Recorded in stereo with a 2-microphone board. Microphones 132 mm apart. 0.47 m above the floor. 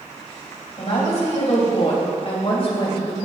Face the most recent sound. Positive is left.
turn(degrees=40)  # may be behind; listen again after turning